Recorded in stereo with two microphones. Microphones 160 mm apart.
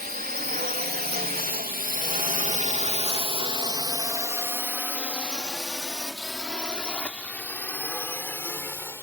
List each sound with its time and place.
0.0 s a drone: 65° right (ahead or behind); by 9.0 s 15° left (ahead or behind)